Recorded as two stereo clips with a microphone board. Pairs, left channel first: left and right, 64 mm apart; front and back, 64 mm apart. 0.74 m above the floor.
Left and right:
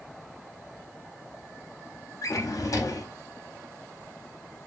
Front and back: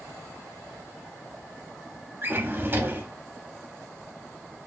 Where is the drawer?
120° left, 0.6 m.